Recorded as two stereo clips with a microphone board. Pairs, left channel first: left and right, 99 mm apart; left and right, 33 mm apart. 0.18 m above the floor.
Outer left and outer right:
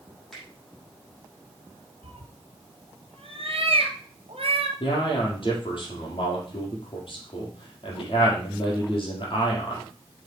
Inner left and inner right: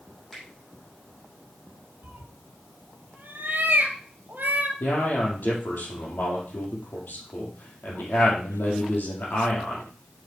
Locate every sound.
0.3 s a finger snap: 5° left (ahead or behind), 5.5 m
2.0 s a cat meowing: 70° right (ahead or behind), 1.7 m
4.8 s a man speaking: 60° left (ahead or behind), 5 m